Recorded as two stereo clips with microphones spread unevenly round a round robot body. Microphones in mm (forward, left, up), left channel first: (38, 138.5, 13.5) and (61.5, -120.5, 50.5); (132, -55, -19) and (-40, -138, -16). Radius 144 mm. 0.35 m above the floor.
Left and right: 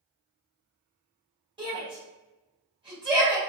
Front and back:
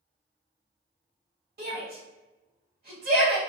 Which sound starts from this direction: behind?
A shout, at 1.6 s.